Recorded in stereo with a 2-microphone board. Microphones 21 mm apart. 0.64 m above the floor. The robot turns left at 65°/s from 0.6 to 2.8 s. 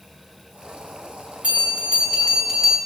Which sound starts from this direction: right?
A bell, at 1.4 s.